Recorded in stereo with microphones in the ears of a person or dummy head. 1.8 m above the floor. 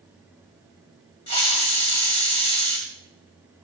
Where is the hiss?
25° left (ahead or behind), 1.6 m.